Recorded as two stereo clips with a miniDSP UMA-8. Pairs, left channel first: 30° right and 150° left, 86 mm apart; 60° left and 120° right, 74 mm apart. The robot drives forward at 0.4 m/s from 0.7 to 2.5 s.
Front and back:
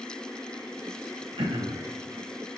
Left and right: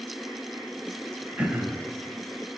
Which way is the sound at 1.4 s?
165° left.